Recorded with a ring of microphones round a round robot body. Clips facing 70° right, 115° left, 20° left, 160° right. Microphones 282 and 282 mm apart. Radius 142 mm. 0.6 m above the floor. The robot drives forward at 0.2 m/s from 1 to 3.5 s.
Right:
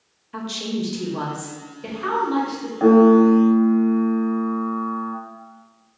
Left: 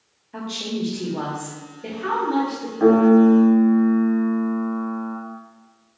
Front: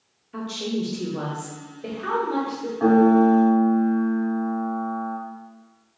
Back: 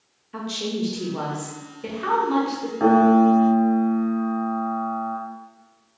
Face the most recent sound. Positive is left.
turn(degrees=-175)